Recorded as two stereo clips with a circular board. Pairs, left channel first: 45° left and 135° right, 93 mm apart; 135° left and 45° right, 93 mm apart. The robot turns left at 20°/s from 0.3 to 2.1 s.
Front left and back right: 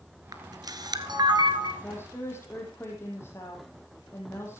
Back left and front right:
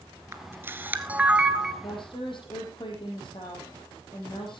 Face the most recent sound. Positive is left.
turn(degrees=105)